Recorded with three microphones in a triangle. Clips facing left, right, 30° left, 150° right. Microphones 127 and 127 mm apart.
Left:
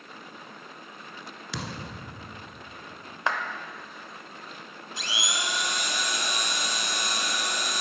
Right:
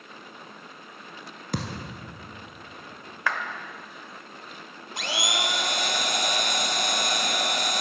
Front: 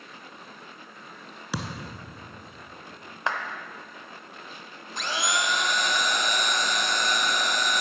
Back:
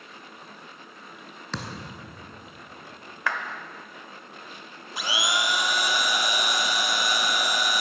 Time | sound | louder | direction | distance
1.5 | a thud | right 4 dB, front 2 dB | 50° right | 1.0 m
3.3 | a clap | left 1 dB, even | 60° left | 0.9 m
5.0 | a blender | right 5 dB, even | 70° right | 0.6 m